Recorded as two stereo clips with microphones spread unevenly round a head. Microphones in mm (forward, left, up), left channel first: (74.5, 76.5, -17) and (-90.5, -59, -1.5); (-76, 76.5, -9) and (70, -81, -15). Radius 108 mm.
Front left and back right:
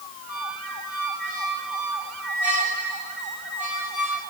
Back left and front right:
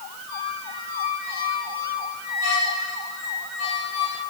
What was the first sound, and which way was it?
A squeak, 135° left.